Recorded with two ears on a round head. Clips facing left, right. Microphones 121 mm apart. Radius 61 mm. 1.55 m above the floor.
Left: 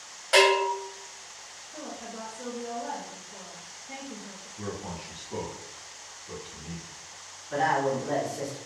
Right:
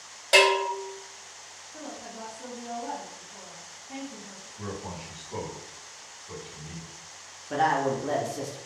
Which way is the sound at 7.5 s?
60° right (ahead or behind).